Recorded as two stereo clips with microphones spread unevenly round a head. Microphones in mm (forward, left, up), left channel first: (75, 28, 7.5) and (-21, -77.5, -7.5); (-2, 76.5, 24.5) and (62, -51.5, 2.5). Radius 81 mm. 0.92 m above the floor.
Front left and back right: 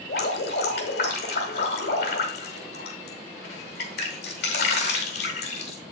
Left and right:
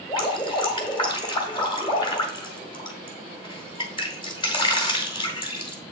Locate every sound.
0.1 s dripping: 65° left, 1.9 m